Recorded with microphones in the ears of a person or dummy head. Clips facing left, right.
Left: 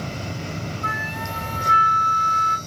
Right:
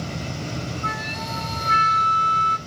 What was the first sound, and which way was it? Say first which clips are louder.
A flute: even; 25° left (ahead or behind).